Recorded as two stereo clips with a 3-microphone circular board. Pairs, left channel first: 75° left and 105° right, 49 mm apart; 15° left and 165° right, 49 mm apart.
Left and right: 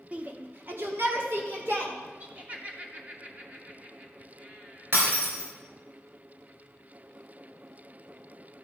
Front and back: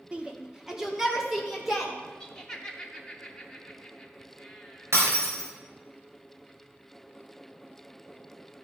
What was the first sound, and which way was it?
A shout, 125° right.